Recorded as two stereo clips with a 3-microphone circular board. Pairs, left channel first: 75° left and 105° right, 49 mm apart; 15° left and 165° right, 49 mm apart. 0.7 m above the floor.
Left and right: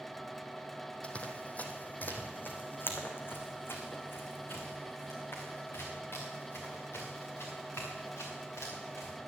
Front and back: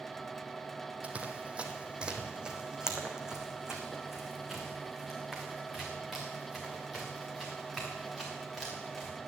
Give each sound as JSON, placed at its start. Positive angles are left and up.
{"t": 1.0, "sound": "running footsteps", "azimuth_deg": 140, "distance_m": 1.4}